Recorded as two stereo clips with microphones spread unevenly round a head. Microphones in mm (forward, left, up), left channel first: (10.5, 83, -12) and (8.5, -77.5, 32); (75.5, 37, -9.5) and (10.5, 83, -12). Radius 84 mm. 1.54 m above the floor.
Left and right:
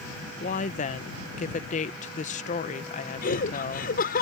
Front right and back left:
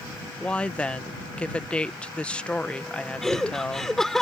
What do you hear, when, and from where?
0.4 s a woman speaking: 40° left
3.2 s laughter: 50° left